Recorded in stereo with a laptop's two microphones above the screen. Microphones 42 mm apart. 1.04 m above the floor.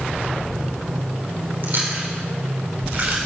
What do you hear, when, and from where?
1.6 s chewing: 55° right (ahead or behind), 4 m